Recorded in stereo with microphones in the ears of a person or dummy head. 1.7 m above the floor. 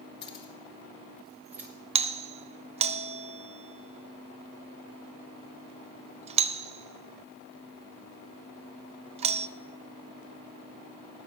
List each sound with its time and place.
0.2 s keys jangling: 35° left (ahead or behind), 2.5 m; by 1.7 s 10° right (ahead or behind), 3 m
1.9 s a doorbell: 25° right (ahead or behind), 0.7 m